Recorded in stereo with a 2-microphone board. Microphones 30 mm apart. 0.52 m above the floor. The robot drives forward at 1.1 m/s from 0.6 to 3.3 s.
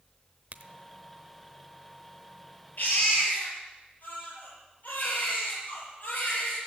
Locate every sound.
0.5 s a crack: 55° right (ahead or behind), 1.0 m; by 0.7 s 50° right (ahead or behind), 1.0 m
2.8 s a baby crying: 55° left (ahead or behind), 6 m